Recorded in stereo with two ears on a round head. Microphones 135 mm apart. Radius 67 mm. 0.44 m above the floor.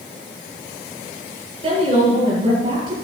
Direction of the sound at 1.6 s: 35° right (ahead or behind).